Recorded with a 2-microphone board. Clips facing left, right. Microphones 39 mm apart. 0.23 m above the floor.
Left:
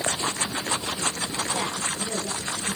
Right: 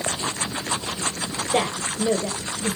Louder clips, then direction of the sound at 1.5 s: Right 5 dB; 70° right (ahead or behind).